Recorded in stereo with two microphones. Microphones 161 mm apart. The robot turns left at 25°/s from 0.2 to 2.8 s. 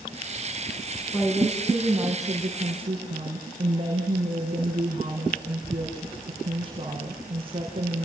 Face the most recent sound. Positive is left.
turn(degrees=-35)